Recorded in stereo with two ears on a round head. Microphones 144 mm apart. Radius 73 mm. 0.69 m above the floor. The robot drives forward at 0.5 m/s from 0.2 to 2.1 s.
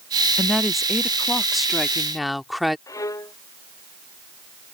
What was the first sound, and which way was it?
A woman speaking, centre (ahead or behind).